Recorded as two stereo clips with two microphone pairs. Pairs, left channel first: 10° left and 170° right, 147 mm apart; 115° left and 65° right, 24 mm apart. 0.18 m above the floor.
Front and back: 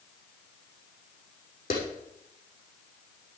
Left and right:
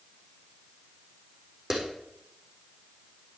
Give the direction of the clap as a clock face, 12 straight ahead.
12 o'clock.